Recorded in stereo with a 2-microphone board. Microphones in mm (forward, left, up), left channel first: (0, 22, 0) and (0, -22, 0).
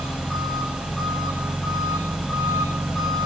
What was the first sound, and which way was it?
An engine running, 10° left (ahead or behind).